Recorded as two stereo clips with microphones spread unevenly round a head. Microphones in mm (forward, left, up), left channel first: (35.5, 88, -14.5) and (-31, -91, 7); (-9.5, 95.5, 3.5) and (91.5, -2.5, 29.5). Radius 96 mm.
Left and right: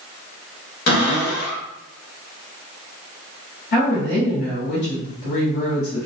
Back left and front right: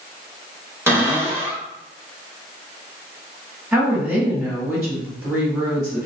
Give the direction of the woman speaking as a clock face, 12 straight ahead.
11 o'clock.